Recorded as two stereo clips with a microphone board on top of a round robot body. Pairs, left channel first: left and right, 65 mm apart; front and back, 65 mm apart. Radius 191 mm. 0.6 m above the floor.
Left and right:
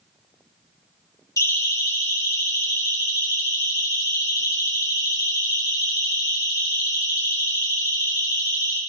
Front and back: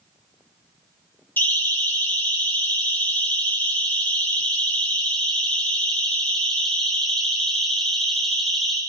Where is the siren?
60° left, 7.5 m; by 8.8 s 90° left, 6 m.